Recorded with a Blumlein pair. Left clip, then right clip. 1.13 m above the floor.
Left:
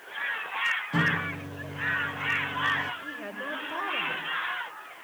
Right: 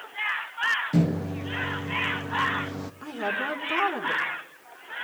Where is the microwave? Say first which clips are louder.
Left 3 dB; 70° right, 0.8 m.